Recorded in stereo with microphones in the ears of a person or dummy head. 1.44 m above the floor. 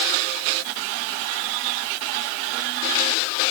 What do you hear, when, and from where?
Only background noise.